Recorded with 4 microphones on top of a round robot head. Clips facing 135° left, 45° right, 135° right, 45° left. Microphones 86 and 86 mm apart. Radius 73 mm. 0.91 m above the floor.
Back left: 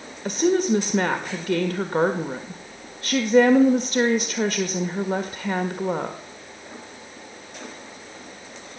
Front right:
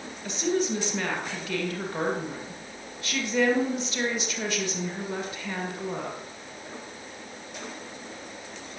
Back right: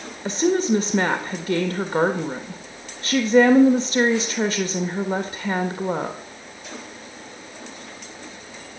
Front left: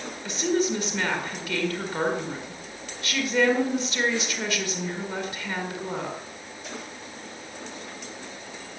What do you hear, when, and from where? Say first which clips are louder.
0.2 s a woman speaking: back left 7 dB, back right 5 dB; 175° left, 1.7 m